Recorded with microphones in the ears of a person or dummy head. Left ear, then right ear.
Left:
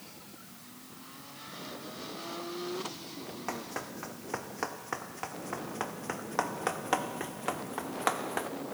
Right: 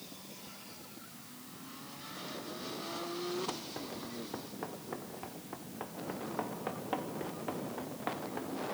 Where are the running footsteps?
60° left (ahead or behind); by 8.5 s 65° left (ahead or behind).